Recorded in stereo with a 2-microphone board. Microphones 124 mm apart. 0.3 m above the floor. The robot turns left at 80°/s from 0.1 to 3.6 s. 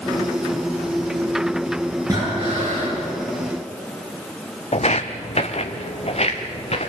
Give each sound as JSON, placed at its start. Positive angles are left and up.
{"t": 2.1, "sound": "breathing", "azimuth_deg": -30, "distance_m": 6.0}
{"t": 4.7, "sound": "footsteps", "side_deg": 60, "distance_m": 0.8}